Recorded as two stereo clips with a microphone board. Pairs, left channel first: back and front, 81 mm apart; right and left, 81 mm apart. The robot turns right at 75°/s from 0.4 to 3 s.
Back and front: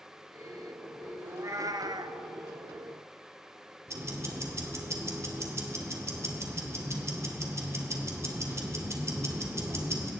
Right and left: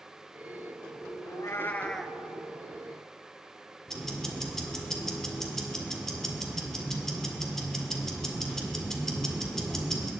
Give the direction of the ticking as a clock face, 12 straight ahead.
12 o'clock.